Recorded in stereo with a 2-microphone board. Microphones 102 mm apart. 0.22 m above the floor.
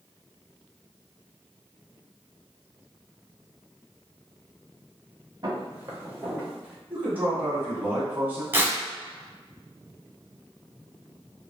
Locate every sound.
5.4 s footsteps: 40° right (ahead or behind), 1.8 m; by 6.8 s centre (ahead or behind), 2 m
6.9 s a man speaking: 20° right (ahead or behind), 1.4 m
8.5 s tearing paper: 20° right (ahead or behind), 0.9 m